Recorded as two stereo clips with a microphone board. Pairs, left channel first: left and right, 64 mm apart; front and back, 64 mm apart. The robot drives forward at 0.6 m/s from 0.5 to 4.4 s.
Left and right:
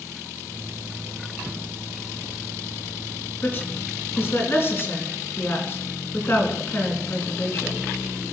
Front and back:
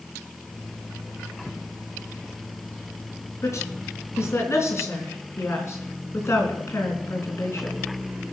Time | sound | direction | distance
3.4 | a woman speaking | 35° left | 4 m